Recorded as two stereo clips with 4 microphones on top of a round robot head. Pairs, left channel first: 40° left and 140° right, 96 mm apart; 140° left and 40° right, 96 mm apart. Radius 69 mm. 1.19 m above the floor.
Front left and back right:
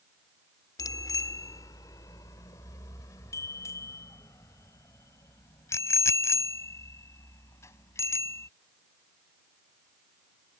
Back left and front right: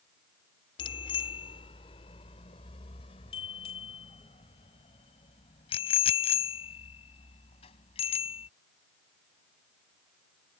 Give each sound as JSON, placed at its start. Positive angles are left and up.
{"t": 0.8, "sound": "a bicycle bell", "azimuth_deg": 100}